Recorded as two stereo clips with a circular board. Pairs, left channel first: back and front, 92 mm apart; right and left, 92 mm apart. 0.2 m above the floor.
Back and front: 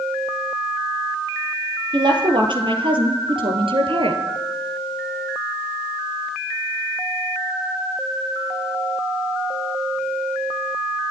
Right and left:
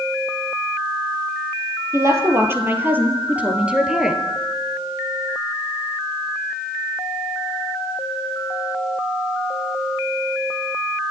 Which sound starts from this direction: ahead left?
A woman speaking, at 1.9 s.